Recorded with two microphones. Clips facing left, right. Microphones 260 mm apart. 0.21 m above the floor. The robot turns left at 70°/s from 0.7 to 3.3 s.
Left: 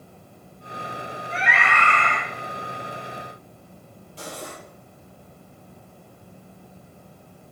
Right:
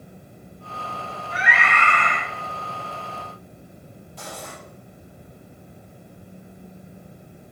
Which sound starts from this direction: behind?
A scream, at 1.3 s.